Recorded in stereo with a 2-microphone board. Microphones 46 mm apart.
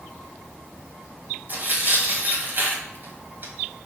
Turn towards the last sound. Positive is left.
turn(degrees=-40)  # may be behind; listen again after turning